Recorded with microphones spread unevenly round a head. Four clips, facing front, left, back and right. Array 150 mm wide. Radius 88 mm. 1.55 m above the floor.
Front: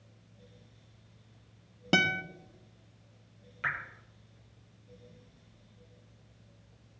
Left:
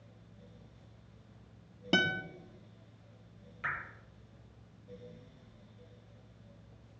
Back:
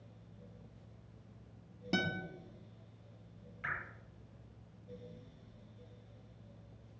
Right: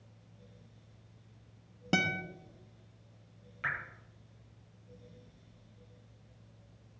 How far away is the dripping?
About 7.5 m.